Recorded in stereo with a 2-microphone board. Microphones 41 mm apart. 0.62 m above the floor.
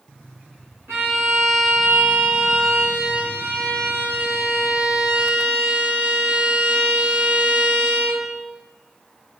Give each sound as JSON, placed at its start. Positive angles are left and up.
{"t": 0.9, "sound": "a violin", "side_deg": -70, "distance_m": 2.0}